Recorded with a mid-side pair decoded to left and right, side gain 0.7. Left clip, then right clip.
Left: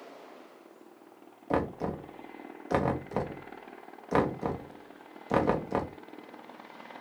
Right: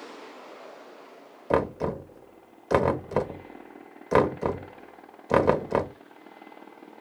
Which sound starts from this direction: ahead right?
Knocking, at 1.5 s.